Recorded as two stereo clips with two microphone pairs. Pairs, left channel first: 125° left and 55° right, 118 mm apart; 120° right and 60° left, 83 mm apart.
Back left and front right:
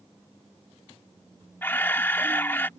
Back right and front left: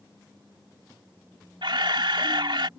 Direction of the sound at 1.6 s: 55° left.